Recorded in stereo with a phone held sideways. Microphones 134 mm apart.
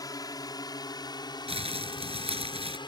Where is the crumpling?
45° right (ahead or behind).